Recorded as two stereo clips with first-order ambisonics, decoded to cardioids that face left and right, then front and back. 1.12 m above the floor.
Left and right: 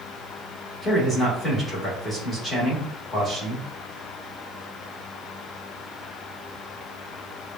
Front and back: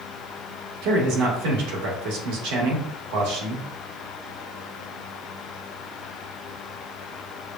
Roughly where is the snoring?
I don't hear snoring.